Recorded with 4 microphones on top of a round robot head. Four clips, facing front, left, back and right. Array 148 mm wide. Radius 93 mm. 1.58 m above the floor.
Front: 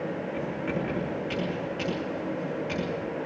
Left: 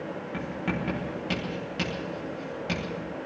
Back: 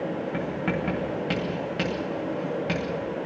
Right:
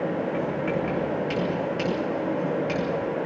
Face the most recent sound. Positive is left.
turn(degrees=165)